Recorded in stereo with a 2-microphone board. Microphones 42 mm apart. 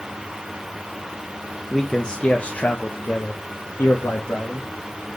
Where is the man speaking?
Centre (ahead or behind), 0.8 m; by 4.7 s 70° left (ahead or behind), 1.6 m.